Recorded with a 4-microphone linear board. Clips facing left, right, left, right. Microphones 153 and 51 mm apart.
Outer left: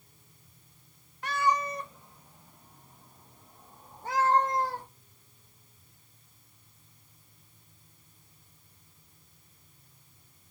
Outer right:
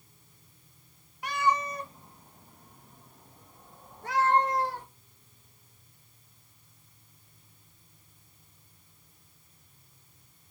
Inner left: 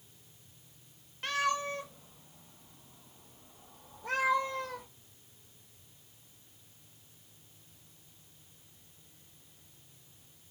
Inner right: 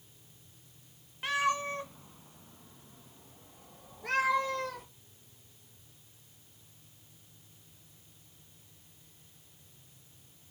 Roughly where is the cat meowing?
Centre.